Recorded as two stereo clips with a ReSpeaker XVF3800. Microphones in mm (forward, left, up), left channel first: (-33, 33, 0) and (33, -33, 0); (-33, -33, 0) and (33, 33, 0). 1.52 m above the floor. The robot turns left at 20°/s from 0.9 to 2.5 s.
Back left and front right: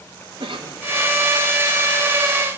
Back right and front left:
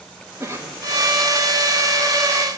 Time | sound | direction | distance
0.4 | a cough | 15° right | 2 m